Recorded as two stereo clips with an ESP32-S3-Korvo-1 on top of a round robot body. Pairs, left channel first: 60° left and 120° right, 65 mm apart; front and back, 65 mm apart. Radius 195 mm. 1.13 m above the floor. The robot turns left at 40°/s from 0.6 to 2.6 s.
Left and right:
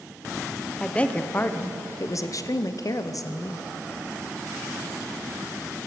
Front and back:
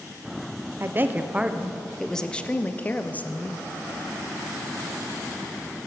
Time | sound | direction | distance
0.8 | a woman speaking | 135° left | 0.9 m